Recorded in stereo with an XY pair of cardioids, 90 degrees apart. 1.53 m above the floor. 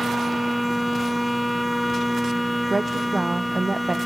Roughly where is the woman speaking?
Ahead.